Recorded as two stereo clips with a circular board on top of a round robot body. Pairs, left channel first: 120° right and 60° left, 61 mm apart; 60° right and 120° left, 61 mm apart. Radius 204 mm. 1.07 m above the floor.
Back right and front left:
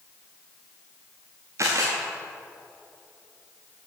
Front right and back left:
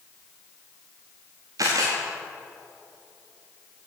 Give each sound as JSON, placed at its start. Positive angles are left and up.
{"t": 1.6, "sound": "a camera shutter", "azimuth_deg": 95, "distance_m": 0.5}